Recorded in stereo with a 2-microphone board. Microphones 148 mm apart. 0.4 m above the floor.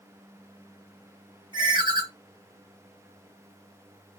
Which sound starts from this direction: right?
A ringtone, at 1.5 s.